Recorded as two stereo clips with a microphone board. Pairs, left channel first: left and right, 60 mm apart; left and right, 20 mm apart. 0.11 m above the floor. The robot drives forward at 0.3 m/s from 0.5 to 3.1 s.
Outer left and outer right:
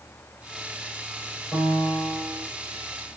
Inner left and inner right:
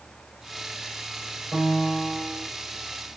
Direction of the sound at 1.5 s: 45° left (ahead or behind).